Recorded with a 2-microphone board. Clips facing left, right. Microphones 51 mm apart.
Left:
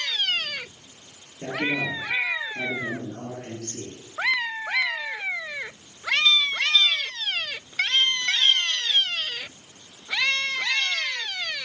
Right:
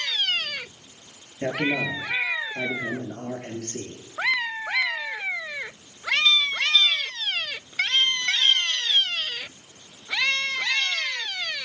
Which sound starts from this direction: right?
A man speaking, at 1.4 s.